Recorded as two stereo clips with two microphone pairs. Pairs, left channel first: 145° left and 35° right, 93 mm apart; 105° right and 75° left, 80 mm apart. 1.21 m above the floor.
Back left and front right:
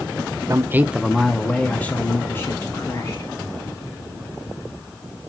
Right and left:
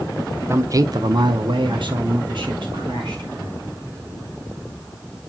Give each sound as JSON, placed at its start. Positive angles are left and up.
{"t": 0.5, "sound": "a man speaking", "azimuth_deg": 20, "distance_m": 0.6}